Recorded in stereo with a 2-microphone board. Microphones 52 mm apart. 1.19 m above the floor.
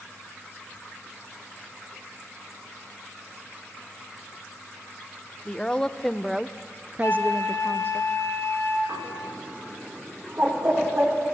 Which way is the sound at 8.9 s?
40° right (ahead or behind).